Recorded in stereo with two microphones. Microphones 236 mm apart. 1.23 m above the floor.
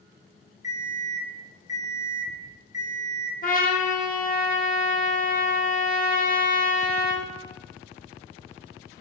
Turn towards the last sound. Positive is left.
turn(degrees=35)  # may be behind; listen again after turning